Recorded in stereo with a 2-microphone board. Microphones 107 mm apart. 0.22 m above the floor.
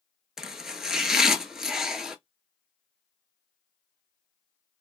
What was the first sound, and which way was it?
Chopping, 5° right (ahead or behind).